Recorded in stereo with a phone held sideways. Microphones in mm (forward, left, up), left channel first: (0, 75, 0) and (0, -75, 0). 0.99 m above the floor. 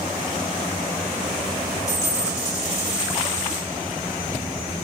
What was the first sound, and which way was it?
A dropped coin, 20° left (ahead or behind).